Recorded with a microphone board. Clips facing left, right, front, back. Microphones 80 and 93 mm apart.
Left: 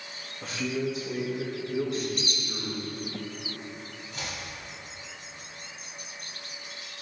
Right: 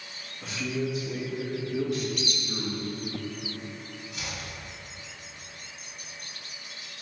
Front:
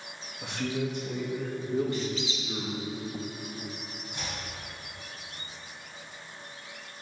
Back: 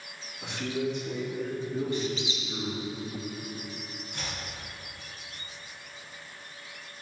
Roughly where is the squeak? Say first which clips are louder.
Even, back 1 dB; behind left.